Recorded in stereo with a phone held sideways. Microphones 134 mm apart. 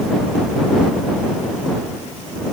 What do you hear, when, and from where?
Only background noise.